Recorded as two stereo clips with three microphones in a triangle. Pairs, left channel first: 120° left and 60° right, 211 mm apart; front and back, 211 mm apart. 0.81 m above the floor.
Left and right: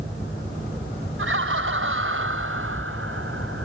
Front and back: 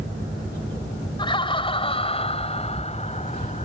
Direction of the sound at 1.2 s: 65° right.